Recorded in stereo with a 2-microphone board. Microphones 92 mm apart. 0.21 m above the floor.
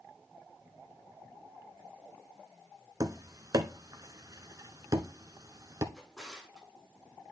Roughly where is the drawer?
Centre.